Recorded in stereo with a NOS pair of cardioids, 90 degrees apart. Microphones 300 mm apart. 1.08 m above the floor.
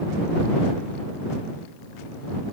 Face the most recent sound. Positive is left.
No sound to turn to.